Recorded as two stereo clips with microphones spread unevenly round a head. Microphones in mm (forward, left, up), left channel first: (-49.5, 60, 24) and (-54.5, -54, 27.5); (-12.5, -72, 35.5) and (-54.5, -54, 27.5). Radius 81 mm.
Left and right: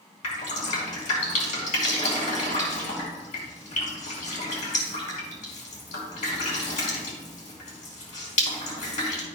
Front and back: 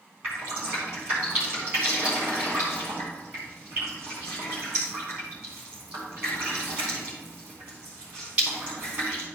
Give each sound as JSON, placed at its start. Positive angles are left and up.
{"t": 0.2, "sound": "dripping", "azimuth_deg": 85, "distance_m": 4.5}